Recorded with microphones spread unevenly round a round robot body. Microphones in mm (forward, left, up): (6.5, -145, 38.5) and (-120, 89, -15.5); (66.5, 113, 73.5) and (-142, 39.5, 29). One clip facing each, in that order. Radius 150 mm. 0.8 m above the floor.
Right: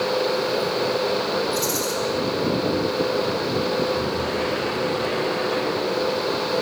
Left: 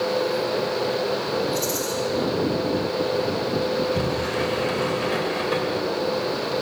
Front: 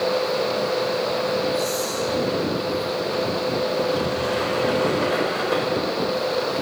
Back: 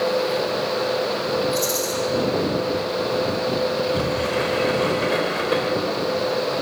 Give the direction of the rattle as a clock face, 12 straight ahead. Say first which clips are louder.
Right 1 dB, even; 5 o'clock.